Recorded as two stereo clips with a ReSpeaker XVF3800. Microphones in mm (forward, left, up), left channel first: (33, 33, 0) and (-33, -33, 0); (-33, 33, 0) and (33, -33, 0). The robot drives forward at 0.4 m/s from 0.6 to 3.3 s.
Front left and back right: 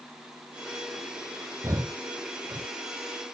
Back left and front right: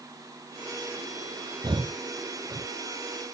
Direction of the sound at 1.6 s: 80° right.